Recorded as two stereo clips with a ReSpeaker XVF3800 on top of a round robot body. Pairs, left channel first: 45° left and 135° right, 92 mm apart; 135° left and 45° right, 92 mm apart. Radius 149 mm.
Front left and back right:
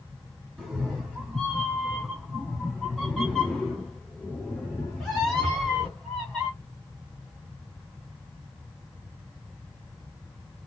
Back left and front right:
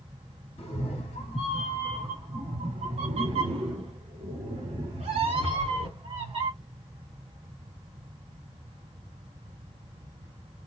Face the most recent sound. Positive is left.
turn(degrees=-40)